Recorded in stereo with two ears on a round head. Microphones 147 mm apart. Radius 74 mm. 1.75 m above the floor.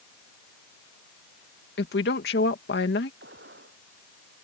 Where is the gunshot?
70° right (ahead or behind).